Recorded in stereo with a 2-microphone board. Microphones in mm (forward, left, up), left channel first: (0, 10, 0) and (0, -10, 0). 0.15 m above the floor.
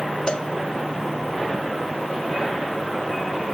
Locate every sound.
0.3 s a cowbell: 50° left (ahead or behind), 0.8 m